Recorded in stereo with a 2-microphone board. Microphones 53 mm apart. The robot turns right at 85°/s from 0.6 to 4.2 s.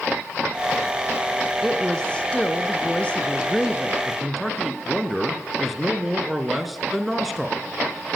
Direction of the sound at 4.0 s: 5° left (ahead or behind).